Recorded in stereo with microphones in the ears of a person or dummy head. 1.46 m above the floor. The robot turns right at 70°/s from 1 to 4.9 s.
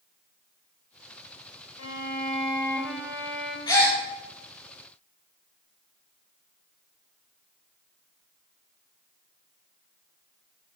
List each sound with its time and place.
1.8 s a violin: 110° left, 0.7 m; by 3.6 s 125° right, 0.7 m
3.7 s a gasp: 20° left (ahead or behind), 1.2 m; by 4.0 s centre (ahead or behind), 1.2 m